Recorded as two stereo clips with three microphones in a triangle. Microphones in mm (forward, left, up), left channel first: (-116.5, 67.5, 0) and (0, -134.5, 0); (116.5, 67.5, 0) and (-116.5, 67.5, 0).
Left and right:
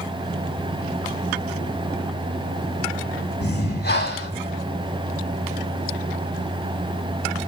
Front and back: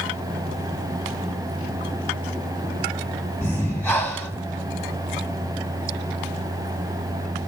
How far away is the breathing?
About 2 m.